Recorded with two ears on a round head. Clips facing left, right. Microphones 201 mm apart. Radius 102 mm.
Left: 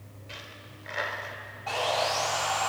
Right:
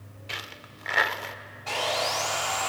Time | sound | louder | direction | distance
0.3 | a dropped coin | right 4 dB | 70° right (ahead or behind) | 0.8 m
1.7 | sawing | left 1 dB | 35° right (ahead or behind) | 2.5 m